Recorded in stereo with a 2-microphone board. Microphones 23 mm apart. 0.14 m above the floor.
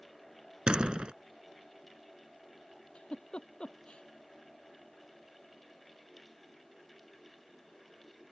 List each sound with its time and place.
0.7 s a door slam: 45° right (ahead or behind)
3.0 s a giggle: 45° left (ahead or behind)